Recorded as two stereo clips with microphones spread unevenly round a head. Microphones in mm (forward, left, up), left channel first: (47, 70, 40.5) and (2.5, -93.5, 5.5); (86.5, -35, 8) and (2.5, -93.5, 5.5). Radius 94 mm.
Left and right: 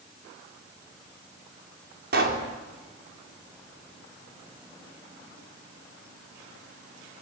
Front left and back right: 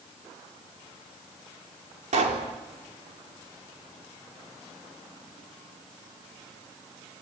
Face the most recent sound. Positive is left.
turn(degrees=-145)